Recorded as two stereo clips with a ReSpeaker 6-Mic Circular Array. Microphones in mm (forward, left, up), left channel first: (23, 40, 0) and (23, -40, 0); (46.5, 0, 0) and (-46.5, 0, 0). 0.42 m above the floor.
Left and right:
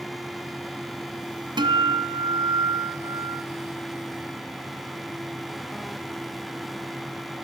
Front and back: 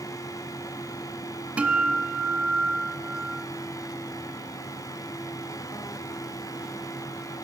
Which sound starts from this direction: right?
A guitar, at 1.6 s.